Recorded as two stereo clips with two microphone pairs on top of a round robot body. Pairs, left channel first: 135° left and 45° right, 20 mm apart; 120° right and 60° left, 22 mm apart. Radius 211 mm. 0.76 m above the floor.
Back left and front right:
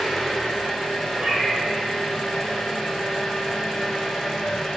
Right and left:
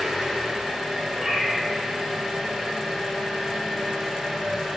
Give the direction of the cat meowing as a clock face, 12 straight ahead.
12 o'clock.